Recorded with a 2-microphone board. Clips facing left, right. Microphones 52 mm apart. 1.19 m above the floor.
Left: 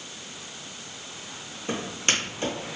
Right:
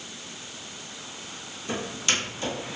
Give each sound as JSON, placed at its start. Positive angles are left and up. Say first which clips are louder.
{"t": 1.7, "sound": "footsteps", "louder": "left 1 dB", "side_deg": 35, "distance_m": 1.7}